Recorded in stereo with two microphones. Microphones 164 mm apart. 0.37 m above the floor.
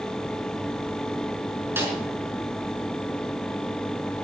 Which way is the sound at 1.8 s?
15° right (ahead or behind).